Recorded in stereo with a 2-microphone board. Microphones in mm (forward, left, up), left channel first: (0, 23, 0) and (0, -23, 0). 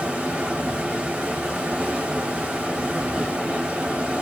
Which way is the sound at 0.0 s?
25° right (ahead or behind).